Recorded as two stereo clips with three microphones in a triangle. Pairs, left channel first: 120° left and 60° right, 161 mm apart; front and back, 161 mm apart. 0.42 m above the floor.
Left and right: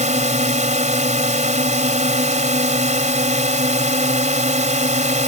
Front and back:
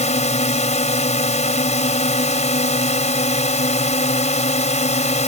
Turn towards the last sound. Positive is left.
turn(degrees=-30)